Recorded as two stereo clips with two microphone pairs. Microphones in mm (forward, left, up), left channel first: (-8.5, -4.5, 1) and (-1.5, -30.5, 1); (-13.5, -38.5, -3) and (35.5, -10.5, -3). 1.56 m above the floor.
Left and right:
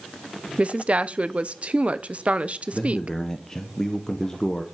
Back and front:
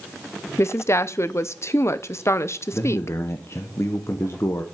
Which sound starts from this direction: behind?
A man speaking, at 2.7 s.